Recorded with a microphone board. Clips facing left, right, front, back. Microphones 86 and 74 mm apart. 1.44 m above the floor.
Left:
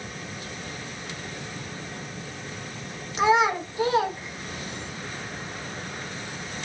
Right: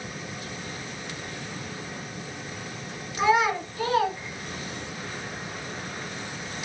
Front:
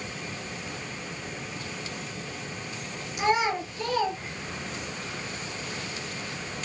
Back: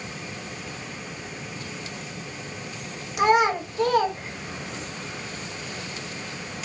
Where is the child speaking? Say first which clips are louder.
Left 1 dB, back 6 dB; 160° left, 1.4 m.